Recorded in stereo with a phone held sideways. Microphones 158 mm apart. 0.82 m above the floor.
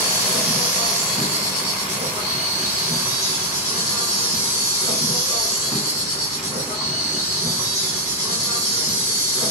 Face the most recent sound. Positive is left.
turn(degrees=-15)  # may be behind; listen again after turning